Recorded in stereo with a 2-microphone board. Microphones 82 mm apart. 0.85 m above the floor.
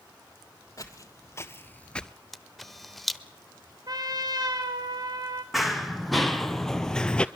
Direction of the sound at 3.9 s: 55° right (ahead or behind).